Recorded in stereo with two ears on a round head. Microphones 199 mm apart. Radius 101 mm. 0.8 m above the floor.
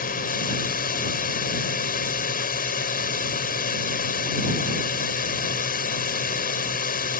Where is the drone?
45° left (ahead or behind).